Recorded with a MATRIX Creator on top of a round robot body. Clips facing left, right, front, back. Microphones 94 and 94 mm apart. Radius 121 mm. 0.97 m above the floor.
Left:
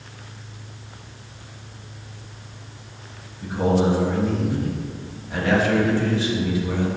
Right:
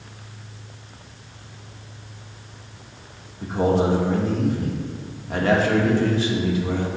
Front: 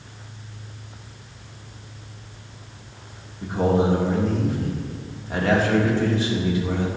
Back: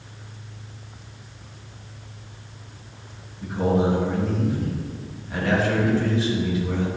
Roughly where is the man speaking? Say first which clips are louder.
Even, front 1 dB; ahead right.